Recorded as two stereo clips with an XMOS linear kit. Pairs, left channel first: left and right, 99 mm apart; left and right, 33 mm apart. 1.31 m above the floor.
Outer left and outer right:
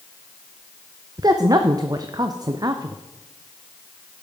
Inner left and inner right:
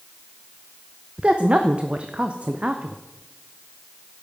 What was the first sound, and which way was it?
A woman speaking, 35° right (ahead or behind).